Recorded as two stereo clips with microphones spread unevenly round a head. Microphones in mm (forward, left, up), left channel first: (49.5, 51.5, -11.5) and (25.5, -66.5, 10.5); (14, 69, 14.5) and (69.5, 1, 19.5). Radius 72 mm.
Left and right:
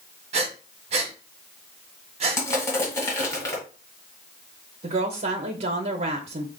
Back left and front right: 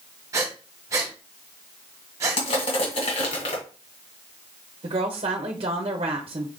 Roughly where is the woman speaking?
Right.